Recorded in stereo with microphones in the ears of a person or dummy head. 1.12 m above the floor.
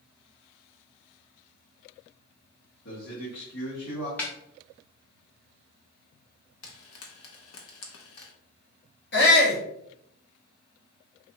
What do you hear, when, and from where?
2.9 s a man speaking: 65° left (ahead or behind), 1.6 m
4.2 s a snare drum: 15° left (ahead or behind), 0.6 m
6.6 s frying: 75° left (ahead or behind), 0.7 m
9.1 s a shout: 55° left (ahead or behind), 1.2 m